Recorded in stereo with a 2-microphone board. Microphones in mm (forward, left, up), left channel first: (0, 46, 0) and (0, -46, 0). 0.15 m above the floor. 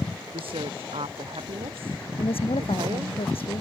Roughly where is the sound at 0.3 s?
Right.